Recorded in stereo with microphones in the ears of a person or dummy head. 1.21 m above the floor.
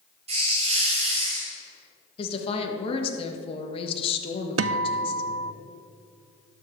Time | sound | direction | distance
0.3 | a hiss | 35° right (ahead or behind) | 1.7 m
2.2 | a woman speaking | 30° left (ahead or behind) | 1.5 m
4.6 | a guitar | 70° right (ahead or behind) | 0.6 m